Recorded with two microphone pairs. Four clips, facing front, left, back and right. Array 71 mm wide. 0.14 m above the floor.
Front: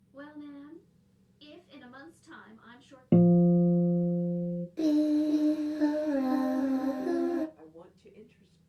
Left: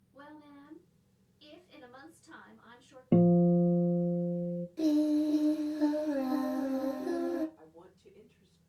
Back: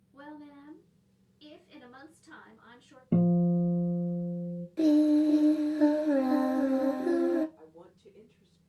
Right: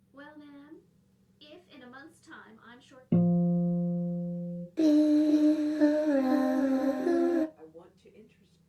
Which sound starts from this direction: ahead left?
A guitar, at 3.1 s.